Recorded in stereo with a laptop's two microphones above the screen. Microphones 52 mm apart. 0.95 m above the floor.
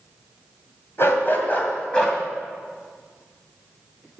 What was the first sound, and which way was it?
A dog barking, 55° left (ahead or behind).